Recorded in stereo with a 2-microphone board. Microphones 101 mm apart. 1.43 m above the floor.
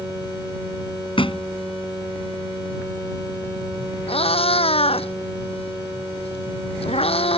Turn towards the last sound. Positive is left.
turn(degrees=75)  # may be behind; listen again after turning